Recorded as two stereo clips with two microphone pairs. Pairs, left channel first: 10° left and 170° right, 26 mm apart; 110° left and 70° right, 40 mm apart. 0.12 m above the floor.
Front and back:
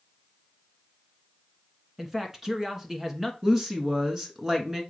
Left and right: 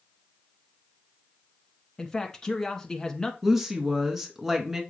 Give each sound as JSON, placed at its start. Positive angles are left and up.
{"t": 2.0, "sound": "a man speaking", "azimuth_deg": 145, "distance_m": 1.1}
{"t": 3.4, "sound": "a woman speaking", "azimuth_deg": -145, "distance_m": 1.3}